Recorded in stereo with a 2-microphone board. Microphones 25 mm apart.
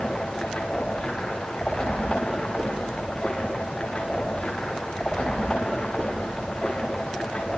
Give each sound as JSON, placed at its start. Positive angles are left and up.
{"t": 0.0, "sound": "running water", "side_deg": 30, "distance_m": 9.0}